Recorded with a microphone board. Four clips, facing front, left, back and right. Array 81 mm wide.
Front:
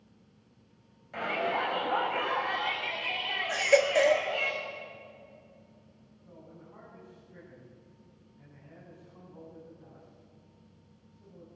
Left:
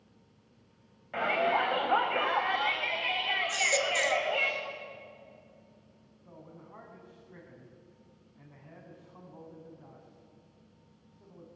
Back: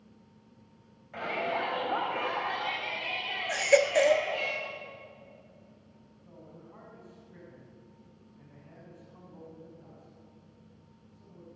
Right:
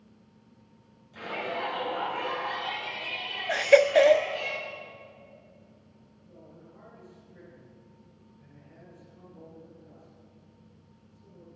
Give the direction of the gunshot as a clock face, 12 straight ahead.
I don't hear a gunshot.